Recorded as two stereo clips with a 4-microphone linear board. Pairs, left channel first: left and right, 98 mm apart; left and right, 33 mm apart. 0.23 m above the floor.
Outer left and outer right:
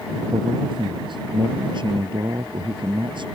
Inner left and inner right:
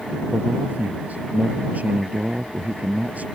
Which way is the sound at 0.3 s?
55° right (ahead or behind).